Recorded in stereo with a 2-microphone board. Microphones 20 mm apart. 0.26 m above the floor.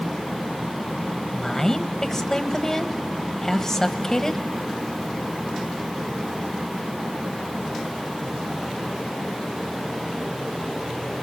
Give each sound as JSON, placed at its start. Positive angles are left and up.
{"t": 1.3, "sound": "a woman speaking", "side_deg": 25, "distance_m": 1.0}